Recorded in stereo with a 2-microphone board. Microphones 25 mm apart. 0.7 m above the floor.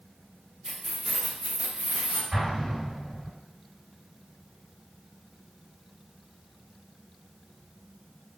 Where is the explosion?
65° right (ahead or behind), 1.8 m.